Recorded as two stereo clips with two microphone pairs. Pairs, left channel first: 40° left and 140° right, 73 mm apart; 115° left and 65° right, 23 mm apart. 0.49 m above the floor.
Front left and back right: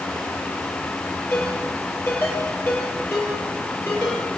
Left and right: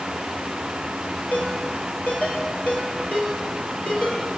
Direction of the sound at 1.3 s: 95° left.